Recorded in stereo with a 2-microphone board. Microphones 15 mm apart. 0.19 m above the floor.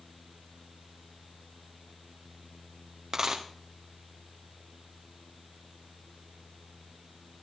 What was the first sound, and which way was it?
A dropped coin, 50° right (ahead or behind).